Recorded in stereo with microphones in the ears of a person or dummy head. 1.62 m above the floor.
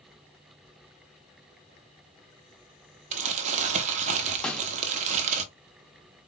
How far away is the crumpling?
About 0.7 m.